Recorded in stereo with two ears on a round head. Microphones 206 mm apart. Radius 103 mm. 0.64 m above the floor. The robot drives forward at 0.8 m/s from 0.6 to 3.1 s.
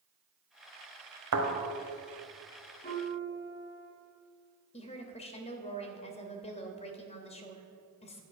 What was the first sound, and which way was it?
A thud, 70° right (ahead or behind).